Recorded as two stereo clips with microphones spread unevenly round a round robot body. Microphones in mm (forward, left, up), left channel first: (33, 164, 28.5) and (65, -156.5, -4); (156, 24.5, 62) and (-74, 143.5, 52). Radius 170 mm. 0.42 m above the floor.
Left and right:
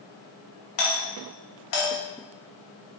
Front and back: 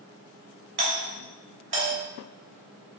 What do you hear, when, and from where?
0.8 s a doorbell: 120° left, 3 m